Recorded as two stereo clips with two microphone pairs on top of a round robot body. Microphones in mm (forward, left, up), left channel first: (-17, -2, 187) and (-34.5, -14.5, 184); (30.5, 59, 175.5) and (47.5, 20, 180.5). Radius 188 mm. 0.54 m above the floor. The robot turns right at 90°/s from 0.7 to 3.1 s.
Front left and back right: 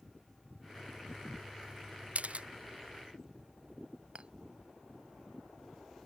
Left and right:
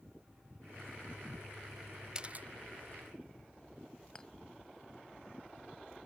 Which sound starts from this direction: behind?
A clink, at 4.2 s.